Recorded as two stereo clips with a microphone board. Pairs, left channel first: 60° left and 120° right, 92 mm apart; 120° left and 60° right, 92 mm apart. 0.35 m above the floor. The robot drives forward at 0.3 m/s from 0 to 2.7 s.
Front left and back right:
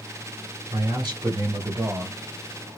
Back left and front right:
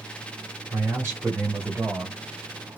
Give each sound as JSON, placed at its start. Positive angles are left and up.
{"t": 0.7, "sound": "a man speaking", "azimuth_deg": -120, "distance_m": 2.5}